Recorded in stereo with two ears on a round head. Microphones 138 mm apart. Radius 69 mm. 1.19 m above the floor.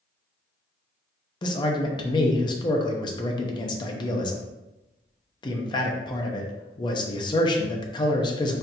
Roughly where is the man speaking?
Left.